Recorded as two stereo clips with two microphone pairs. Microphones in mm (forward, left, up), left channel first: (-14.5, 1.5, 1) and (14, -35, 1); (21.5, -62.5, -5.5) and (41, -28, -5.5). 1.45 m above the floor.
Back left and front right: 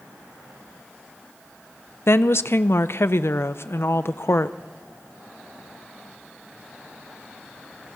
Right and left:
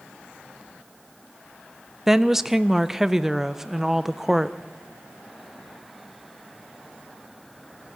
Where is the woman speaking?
145° left, 0.6 m.